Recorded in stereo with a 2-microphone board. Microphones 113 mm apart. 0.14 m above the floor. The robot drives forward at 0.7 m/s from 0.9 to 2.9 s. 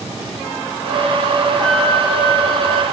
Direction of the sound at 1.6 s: 5° left (ahead or behind).